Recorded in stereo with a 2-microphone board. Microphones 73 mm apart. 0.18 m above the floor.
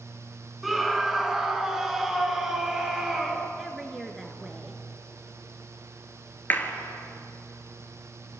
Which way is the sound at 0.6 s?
Centre (ahead or behind).